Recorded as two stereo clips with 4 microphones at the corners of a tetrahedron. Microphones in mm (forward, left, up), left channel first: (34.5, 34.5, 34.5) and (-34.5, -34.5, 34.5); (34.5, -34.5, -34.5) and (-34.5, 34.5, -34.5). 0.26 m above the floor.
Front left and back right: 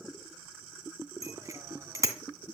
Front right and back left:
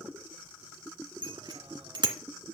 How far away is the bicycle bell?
About 2 m.